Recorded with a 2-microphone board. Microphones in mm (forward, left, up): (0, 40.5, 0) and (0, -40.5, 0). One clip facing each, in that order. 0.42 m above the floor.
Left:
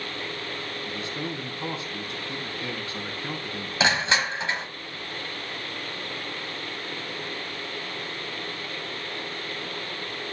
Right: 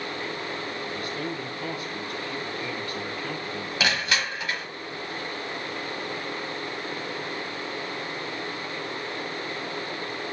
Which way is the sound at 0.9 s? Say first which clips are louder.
Left 1 dB; 25° left (ahead or behind).